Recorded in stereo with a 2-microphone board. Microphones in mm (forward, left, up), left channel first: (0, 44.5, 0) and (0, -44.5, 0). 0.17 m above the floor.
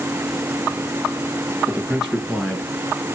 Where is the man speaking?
10° right (ahead or behind), 2.5 m; by 3.1 s 25° left (ahead or behind), 1.4 m.